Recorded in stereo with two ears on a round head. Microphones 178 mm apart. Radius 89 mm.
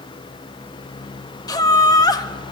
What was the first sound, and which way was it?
Laughter, 20° left (ahead or behind).